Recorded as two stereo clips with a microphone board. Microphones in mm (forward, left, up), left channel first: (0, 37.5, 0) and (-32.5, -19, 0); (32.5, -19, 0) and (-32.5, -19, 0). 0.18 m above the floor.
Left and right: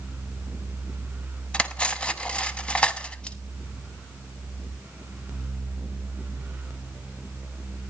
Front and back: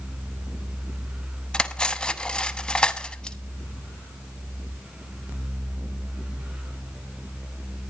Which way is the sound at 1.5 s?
35° left.